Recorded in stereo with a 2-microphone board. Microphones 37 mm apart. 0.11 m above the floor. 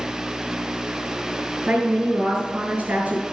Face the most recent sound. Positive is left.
turn(degrees=-50)  # may be behind; listen again after turning